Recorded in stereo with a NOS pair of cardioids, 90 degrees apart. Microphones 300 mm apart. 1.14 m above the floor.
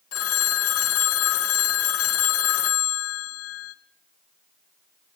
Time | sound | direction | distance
0.1 | a phone ringing | 55° left | 0.7 m